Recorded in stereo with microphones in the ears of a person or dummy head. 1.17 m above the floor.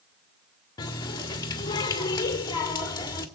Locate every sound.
0.8 s a running tap: 20° left (ahead or behind), 1.6 m